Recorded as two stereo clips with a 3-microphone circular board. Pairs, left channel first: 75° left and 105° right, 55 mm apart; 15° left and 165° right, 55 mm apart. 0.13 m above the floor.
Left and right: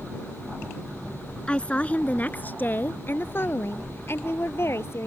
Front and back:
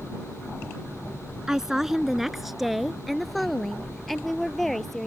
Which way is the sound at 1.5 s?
120° left.